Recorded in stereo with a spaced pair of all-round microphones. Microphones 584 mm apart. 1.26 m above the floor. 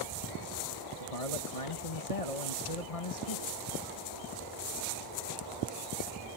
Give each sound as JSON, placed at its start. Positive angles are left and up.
{"t": 1.0, "sound": "a man speaking", "side_deg": 70}